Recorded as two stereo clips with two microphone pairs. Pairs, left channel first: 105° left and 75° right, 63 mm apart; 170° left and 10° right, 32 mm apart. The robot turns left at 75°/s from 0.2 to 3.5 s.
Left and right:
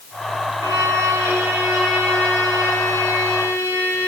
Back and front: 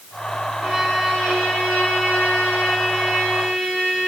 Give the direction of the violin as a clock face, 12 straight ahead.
2 o'clock.